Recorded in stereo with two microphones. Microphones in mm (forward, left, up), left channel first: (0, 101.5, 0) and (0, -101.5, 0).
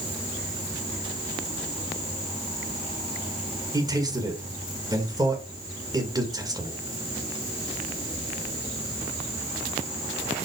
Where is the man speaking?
15° right (ahead or behind), 2 m.